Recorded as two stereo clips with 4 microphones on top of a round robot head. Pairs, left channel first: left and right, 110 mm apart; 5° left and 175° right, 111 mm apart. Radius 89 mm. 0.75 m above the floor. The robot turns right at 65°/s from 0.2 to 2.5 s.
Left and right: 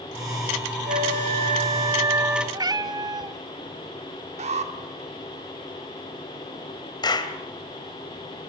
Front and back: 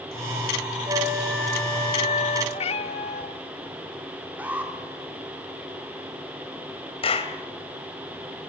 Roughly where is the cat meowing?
Ahead right.